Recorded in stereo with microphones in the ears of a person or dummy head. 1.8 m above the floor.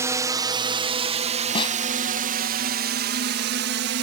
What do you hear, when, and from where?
0.0 s a drone: 15° right (ahead or behind); by 4.0 s 60° right (ahead or behind)
1.6 s a snare drum: 30° left (ahead or behind)